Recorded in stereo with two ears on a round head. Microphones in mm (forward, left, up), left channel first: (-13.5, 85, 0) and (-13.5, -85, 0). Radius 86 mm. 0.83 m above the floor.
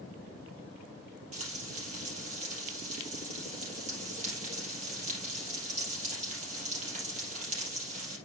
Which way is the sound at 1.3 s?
35° right (ahead or behind).